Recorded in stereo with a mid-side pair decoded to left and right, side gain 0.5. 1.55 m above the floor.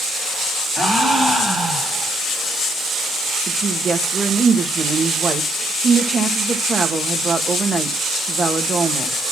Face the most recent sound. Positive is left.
turn(degrees=-30)